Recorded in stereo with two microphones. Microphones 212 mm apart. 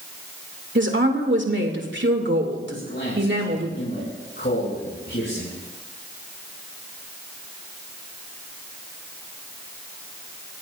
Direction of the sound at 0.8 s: 60° right (ahead or behind).